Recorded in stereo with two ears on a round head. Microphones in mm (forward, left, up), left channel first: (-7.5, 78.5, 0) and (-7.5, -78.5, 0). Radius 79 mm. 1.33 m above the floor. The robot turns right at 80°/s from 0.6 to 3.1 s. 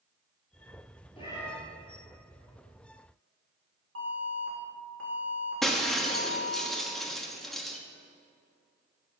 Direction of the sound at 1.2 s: 35° left (ahead or behind).